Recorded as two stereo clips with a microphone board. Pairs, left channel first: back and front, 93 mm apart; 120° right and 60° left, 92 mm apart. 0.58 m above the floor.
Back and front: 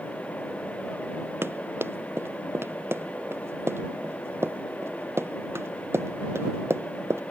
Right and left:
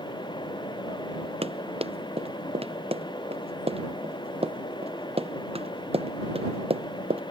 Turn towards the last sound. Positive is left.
turn(degrees=65)